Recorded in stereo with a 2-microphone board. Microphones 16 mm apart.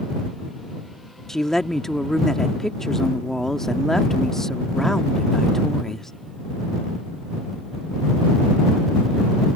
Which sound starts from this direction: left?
A woman speaking, at 1.3 s.